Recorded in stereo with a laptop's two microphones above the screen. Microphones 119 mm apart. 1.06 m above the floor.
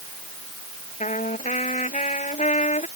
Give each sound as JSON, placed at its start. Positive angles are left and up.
{"t": 1.0, "sound": "a trumpet", "side_deg": 75}